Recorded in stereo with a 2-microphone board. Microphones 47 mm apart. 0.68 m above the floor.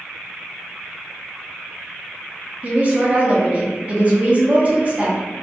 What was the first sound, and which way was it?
A woman speaking, 30° right (ahead or behind).